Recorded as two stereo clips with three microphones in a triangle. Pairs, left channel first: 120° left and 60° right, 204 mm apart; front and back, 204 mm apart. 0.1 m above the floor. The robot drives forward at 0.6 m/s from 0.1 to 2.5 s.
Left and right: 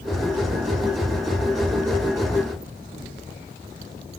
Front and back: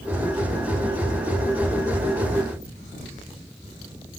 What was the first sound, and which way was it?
Only background noise.